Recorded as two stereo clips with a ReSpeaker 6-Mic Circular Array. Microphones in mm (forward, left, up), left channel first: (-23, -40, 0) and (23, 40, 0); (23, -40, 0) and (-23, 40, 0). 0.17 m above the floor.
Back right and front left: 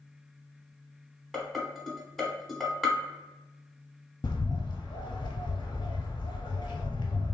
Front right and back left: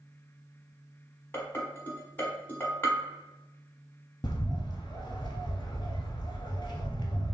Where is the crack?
No crack in this recording.